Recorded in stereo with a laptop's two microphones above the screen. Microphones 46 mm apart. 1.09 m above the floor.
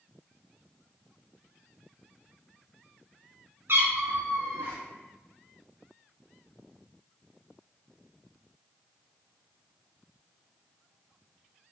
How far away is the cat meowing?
About 0.6 m.